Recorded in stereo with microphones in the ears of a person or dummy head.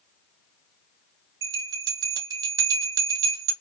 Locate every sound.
1.4 s a bell: 25° right (ahead or behind), 1.0 m